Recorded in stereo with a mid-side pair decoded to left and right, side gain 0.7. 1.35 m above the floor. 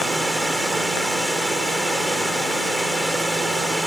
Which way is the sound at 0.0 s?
Straight ahead.